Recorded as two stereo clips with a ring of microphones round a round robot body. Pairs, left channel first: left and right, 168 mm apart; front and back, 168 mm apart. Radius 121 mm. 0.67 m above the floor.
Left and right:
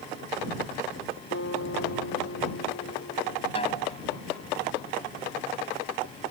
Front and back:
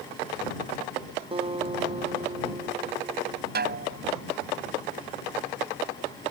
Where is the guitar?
125° left.